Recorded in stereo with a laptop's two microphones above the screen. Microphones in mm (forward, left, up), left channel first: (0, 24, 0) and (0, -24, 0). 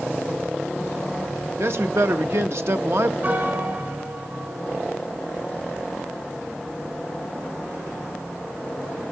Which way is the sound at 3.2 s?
40° right (ahead or behind).